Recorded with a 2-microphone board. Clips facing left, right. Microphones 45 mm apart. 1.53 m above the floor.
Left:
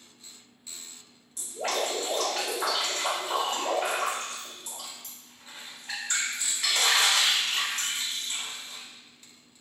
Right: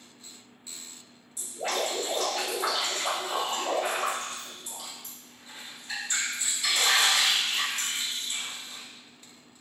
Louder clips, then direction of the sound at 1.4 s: Left 1 dB; 55° left (ahead or behind).